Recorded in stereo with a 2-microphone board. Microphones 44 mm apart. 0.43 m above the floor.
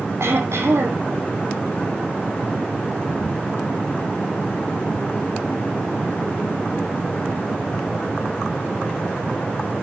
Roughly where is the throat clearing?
Right.